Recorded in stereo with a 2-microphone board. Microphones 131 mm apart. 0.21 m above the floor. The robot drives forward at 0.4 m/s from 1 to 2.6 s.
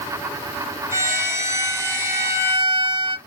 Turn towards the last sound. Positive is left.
turn(degrees=-25)  # may be behind; listen again after turning